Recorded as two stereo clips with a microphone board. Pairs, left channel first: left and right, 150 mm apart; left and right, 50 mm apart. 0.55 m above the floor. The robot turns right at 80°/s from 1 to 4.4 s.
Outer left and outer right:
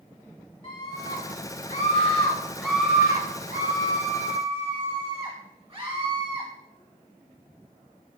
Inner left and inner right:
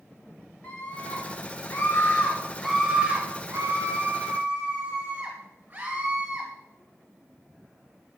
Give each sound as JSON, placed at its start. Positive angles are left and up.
{"t": 0.6, "sound": "a scream", "azimuth_deg": 55, "distance_m": 1.7}